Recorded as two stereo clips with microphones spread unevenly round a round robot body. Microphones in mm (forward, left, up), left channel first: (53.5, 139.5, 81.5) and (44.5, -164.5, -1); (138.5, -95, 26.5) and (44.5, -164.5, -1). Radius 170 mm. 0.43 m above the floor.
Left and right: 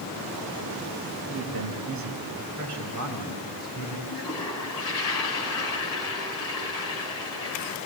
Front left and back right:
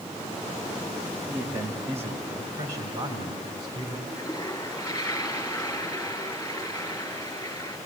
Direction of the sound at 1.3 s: 130° right.